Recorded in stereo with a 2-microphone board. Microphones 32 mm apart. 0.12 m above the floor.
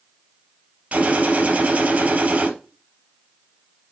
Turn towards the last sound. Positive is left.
turn(degrees=-45)  # may be behind; listen again after turning